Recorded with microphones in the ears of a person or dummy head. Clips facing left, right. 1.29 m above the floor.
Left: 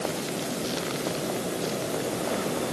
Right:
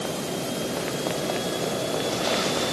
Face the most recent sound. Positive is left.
No sound to turn to.